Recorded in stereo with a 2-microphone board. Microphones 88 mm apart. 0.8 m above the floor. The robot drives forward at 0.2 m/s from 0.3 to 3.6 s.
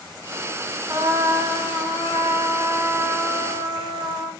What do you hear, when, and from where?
0.9 s a trumpet: 45° right (ahead or behind), 1.2 m; by 4.3 s 30° right (ahead or behind), 1.6 m